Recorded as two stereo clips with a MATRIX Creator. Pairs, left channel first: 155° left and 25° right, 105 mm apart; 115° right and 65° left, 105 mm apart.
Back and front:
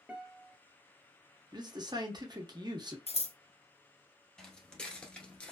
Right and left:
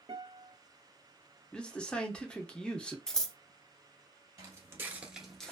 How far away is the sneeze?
I don't hear a sneeze.